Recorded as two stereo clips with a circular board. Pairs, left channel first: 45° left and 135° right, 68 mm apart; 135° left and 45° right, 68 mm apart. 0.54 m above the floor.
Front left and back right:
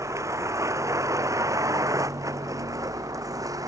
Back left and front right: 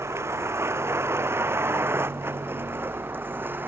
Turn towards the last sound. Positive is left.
turn(degrees=-105)